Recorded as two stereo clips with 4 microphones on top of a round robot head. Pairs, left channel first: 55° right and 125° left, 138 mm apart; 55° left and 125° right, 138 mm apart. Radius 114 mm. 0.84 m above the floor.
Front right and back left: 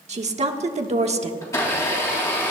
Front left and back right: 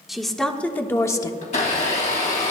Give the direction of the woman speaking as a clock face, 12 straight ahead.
7 o'clock.